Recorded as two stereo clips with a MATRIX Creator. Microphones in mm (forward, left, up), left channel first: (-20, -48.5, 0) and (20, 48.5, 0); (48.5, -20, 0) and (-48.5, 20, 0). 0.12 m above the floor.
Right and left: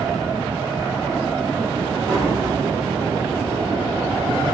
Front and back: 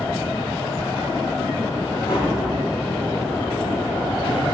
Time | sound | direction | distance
2.1 | tapping | 20° left | 1.9 m